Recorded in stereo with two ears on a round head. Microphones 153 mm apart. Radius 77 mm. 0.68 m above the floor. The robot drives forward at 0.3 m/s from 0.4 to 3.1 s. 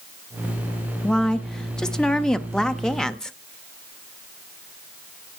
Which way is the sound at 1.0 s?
5° left (ahead or behind).